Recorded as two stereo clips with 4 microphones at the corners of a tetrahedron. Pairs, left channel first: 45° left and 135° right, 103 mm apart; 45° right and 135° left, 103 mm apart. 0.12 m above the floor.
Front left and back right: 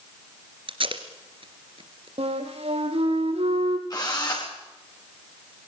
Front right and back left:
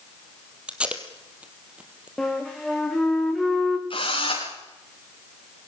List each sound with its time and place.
0.7 s tape being pulled: 145° right, 2.5 m
2.2 s a flute: 130° right, 3.5 m
3.9 s a drill: 5° right, 8.5 m